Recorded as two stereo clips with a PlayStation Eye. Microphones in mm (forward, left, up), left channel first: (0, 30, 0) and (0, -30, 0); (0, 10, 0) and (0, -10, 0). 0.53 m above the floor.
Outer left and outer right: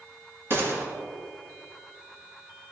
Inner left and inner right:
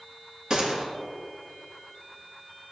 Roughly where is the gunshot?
Right.